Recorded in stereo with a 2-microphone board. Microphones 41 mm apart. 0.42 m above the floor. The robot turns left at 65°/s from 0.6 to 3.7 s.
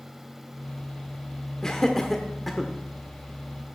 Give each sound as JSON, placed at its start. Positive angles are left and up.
{"t": 1.6, "sound": "laughter", "side_deg": 15, "distance_m": 1.1}